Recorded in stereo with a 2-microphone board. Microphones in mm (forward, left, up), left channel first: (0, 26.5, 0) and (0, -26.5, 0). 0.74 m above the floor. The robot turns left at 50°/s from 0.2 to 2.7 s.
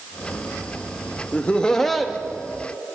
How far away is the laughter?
About 0.6 m.